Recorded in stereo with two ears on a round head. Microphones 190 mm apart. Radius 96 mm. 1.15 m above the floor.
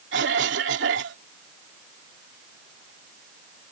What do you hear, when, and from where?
0.1 s a cough: 60° right (ahead or behind)